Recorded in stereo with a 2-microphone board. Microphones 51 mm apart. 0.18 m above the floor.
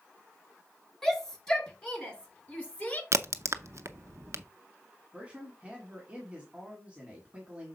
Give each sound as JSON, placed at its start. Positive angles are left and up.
{"t": 1.0, "sound": "a shout", "side_deg": 10, "distance_m": 3.0}
{"t": 3.1, "sound": "a crack", "side_deg": -60, "distance_m": 0.6}
{"t": 5.1, "sound": "a man speaking", "side_deg": -20, "distance_m": 1.7}